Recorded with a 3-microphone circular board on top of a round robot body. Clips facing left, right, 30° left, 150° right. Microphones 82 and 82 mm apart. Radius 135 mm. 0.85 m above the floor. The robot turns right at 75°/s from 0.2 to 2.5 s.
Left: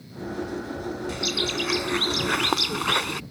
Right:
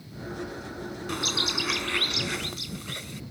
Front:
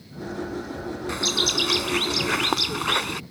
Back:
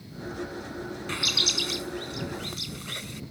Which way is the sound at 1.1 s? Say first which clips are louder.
Right 1 dB, front 7 dB; 45° right.